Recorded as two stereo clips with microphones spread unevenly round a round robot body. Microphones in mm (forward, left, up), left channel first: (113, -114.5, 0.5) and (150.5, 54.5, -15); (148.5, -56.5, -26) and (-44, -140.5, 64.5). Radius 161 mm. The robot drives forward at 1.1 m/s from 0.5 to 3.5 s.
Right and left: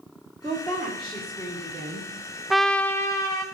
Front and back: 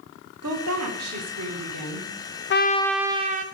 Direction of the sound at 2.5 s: 20° right.